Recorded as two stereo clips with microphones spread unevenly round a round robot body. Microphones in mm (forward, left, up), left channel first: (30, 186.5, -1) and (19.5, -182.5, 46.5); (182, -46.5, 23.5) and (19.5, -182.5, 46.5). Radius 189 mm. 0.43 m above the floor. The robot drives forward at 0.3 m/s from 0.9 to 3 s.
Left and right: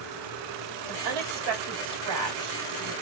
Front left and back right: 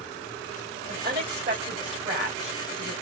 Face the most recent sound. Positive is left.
turn(degrees=-120)